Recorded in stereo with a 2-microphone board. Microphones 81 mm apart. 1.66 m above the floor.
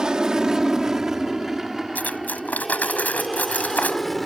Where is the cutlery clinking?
20° left (ahead or behind).